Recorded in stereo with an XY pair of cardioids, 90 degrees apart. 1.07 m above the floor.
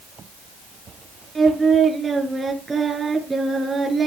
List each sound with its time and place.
1.4 s singing: 30° right, 6 m